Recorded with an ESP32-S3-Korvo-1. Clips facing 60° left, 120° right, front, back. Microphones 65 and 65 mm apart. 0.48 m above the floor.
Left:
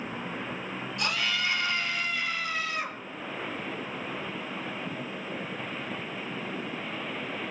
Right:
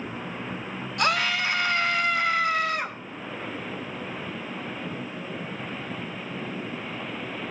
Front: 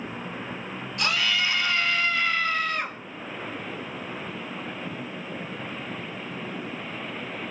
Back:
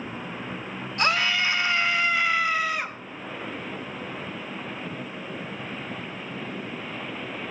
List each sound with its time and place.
1.0 s a scream: 130° right, 2.5 m; by 3.0 s 95° right, 2.5 m